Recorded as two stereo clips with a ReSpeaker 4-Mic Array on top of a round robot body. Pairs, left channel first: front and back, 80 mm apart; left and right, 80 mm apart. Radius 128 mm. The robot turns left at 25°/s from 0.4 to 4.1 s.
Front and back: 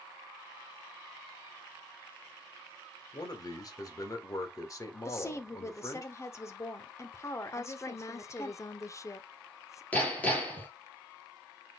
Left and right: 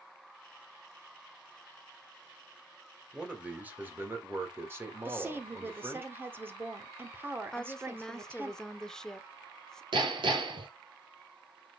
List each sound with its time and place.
3.1 s a man speaking: 10° right, 2 m; by 6.0 s 35° right, 2 m
5.0 s a woman speaking: 40° right, 1.4 m
7.5 s a woman speaking: 10° left, 1.1 m
9.9 s hammering: 70° right, 3 m